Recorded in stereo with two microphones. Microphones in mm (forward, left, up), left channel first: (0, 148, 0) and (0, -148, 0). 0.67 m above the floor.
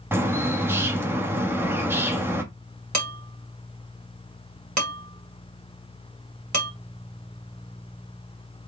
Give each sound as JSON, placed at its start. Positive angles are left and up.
{"t": 0.1, "sound": "a bird", "side_deg": -10, "distance_m": 1.0}
{"t": 2.9, "sound": "dishes clattering", "side_deg": -65, "distance_m": 1.9}